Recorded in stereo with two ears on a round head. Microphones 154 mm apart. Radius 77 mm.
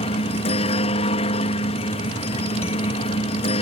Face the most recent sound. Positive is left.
turn(degrees=35)  # may be behind; listen again after turning